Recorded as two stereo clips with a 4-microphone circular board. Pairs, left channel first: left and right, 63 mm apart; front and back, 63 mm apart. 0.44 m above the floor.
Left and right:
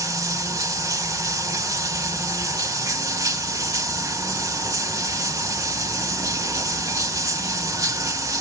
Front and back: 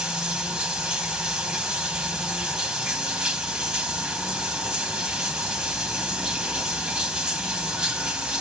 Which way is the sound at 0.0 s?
105° right.